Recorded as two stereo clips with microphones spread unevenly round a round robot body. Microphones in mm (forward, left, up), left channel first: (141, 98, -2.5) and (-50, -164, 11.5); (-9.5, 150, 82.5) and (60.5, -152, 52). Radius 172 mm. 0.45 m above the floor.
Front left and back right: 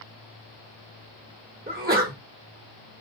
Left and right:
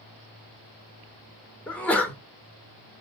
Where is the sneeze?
165° right, 1.0 m.